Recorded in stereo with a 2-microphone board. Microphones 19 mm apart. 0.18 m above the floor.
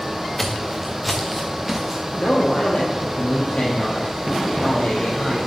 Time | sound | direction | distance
0.4 | footsteps | 5° left (ahead or behind) | 1.5 m
2.2 | a man speaking | 70° left (ahead or behind) | 3.5 m